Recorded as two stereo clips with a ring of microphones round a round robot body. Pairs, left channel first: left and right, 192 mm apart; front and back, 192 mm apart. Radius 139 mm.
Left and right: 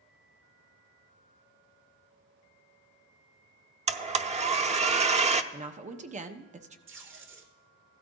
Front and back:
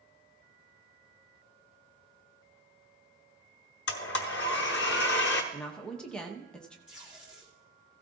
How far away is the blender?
About 0.7 m.